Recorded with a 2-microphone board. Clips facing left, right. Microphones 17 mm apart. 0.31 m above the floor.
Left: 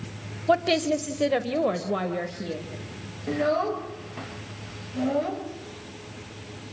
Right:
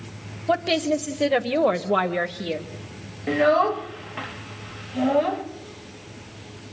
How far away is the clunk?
No clunk in this recording.